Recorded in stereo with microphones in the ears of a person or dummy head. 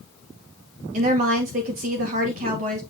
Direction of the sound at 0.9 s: 45° right (ahead or behind).